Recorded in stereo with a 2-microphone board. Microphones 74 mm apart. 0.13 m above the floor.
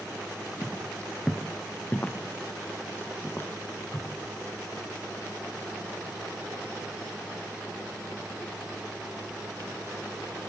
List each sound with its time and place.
0.6 s footsteps: 10° left (ahead or behind), 2 m; by 4.2 s 35° left (ahead or behind), 3.5 m